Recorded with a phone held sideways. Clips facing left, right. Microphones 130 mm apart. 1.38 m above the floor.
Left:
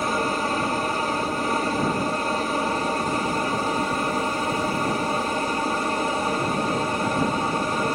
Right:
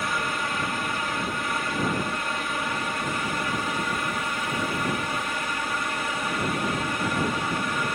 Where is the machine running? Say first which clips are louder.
Left 5 dB; 40° left (ahead or behind).